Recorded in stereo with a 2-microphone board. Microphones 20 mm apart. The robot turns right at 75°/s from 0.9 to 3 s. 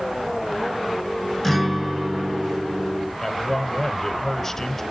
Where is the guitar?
165° left, 2.5 m; by 3.1 s 75° right, 2.5 m.